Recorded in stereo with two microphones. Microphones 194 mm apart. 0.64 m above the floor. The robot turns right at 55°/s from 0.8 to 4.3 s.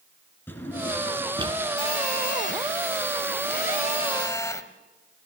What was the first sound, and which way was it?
A drawer, 10° left (ahead or behind).